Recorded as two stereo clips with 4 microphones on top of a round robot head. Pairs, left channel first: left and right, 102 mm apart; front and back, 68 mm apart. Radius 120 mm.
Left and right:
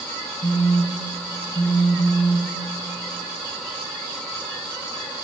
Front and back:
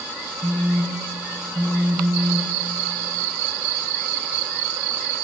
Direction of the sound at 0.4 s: 140° left.